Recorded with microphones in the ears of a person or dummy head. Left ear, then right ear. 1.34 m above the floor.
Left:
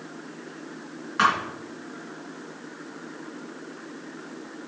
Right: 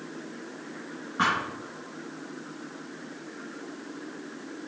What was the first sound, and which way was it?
A thud, 70° left (ahead or behind).